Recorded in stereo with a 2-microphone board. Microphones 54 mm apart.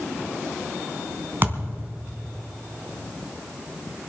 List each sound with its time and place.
1.4 s a thud: 40° right (ahead or behind), 3 m